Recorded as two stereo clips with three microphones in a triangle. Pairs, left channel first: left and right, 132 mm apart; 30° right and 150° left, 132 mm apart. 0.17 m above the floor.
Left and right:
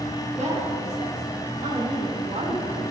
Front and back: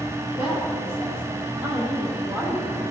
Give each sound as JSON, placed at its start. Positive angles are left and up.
{"t": 0.4, "sound": "a woman speaking", "azimuth_deg": -65, "distance_m": 4.0}